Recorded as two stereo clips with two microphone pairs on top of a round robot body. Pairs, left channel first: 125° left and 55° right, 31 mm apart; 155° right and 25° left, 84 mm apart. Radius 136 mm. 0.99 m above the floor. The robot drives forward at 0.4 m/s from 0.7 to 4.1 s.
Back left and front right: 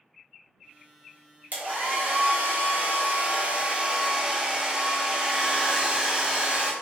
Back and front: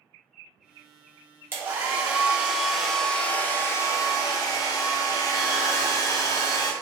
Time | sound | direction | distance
1.5 | a hair dryer | 30° right | 1.1 m